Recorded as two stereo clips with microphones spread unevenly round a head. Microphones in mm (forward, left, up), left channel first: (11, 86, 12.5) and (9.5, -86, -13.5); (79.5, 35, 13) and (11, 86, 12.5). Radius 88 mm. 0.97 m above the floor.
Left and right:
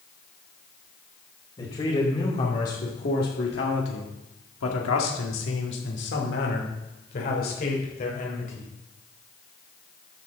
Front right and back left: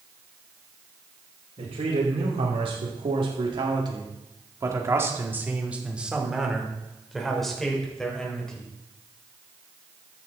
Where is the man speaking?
155° left, 3.5 m; by 8.7 s 45° left, 5 m.